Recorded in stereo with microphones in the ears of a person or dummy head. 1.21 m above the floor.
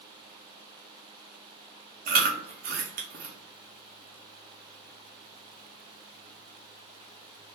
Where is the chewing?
45° right (ahead or behind), 0.5 m.